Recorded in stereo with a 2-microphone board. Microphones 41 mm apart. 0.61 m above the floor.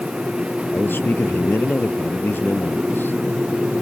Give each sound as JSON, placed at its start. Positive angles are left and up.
{"t": 0.7, "sound": "a man speaking", "side_deg": 50}